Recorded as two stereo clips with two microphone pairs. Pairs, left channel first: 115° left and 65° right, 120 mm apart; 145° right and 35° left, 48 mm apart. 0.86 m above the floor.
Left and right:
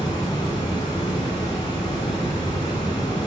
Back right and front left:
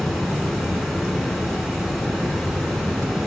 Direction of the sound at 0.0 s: 120° left.